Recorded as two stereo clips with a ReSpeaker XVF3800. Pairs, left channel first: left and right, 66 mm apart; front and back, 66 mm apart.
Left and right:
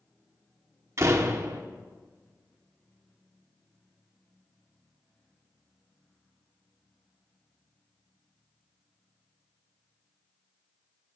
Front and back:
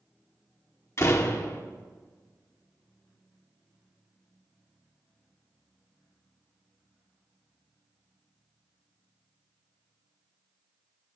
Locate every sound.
1.0 s a door slam: 45° right, 1.3 m